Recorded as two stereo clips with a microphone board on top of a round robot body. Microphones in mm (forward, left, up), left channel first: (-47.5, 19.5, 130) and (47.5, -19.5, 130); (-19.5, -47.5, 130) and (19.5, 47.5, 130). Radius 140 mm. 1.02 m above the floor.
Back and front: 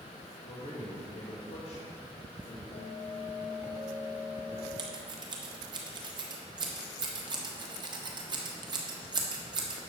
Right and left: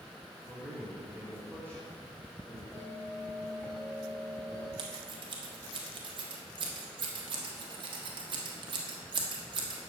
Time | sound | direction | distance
0.4 | a man speaking | 155° left | 3 m
2.7 | a bell | 175° left | 1.7 m
4.8 | scissors | 25° left | 1.5 m